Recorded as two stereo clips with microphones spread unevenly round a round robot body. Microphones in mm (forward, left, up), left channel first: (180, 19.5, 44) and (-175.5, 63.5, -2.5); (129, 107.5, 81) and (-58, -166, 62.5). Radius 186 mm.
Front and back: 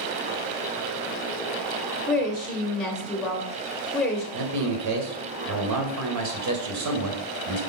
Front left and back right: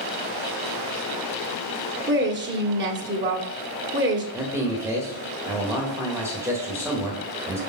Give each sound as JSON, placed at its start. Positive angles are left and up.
{"t": 2.1, "sound": "a woman speaking", "azimuth_deg": -105, "distance_m": 1.1}
{"t": 4.3, "sound": "a man speaking", "azimuth_deg": 155, "distance_m": 1.3}